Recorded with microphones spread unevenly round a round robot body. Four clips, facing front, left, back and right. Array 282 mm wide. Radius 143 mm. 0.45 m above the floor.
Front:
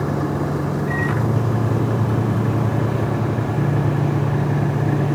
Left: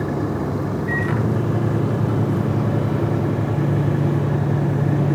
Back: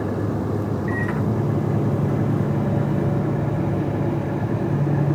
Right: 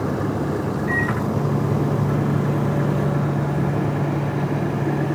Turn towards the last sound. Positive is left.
turn(degrees=110)